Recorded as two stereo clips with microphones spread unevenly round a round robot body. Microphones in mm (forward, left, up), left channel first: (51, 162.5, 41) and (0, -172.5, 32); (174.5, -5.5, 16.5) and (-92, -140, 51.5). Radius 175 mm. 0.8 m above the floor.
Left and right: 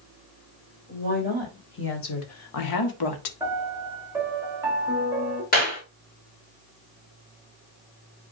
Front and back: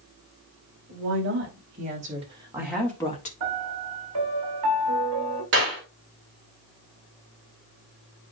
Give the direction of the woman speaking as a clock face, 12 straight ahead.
7 o'clock.